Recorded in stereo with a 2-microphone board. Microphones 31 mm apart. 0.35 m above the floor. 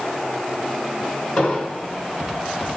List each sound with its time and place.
1.4 s an explosion: 25° left (ahead or behind), 3.5 m